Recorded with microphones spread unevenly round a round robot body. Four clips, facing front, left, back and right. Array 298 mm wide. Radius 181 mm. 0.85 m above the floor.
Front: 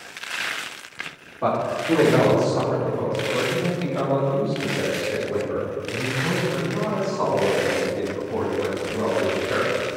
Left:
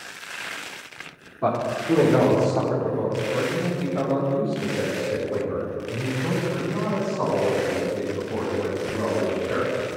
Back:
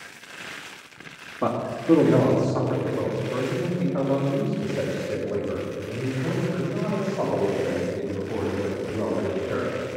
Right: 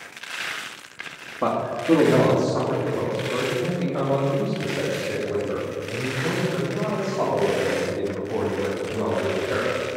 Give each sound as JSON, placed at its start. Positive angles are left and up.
{"t": 1.4, "sound": "a man speaking", "azimuth_deg": -140, "distance_m": 1.7}